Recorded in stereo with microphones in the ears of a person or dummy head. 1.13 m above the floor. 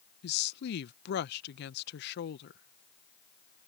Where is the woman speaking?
50° left (ahead or behind).